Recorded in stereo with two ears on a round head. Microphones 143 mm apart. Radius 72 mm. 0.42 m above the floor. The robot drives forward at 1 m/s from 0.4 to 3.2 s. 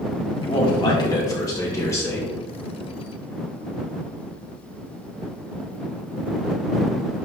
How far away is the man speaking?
About 2.0 m.